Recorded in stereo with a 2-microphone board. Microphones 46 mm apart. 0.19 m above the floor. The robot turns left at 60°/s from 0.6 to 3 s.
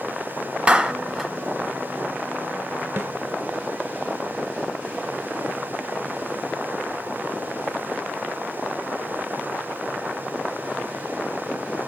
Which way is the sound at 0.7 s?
25° right (ahead or behind).